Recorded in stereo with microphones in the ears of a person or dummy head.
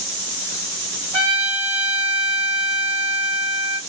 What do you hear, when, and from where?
1.1 s a trumpet: 35° right (ahead or behind), 1.3 m